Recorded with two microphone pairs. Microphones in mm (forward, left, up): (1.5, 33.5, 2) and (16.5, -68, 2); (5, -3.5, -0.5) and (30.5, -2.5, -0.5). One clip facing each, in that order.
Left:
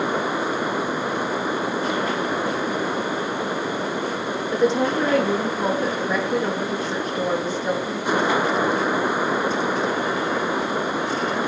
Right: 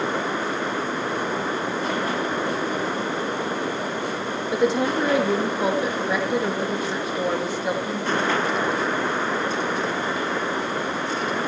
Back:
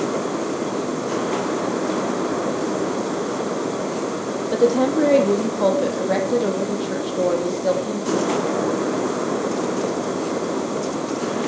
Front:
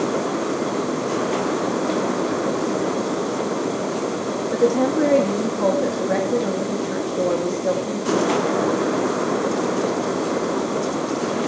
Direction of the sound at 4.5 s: 165° right.